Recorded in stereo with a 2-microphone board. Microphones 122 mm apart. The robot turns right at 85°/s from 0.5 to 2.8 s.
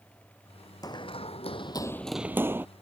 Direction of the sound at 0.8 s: 30° left (ahead or behind).